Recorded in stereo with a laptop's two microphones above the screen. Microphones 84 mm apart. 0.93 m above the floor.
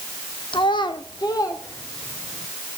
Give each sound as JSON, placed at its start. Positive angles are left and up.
{"t": 0.5, "sound": "a child speaking", "side_deg": 75, "distance_m": 0.9}